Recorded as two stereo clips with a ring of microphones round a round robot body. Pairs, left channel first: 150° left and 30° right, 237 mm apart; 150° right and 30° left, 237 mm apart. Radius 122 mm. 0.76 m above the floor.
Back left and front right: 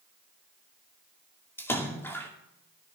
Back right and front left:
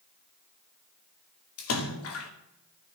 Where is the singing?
I don't hear singing.